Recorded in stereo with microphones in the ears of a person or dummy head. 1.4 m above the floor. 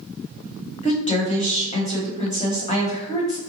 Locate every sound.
0.8 s a woman speaking: 40° left (ahead or behind), 1.1 m